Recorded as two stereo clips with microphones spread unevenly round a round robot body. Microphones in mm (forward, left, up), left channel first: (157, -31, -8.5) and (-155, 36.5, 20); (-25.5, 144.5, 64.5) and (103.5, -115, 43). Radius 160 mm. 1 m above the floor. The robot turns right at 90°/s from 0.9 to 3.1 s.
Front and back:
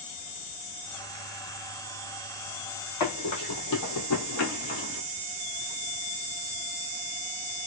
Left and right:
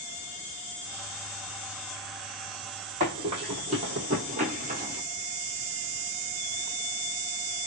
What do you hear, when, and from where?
3.0 s running footsteps: straight ahead, 1.8 m; by 5.0 s 20° right, 1.1 m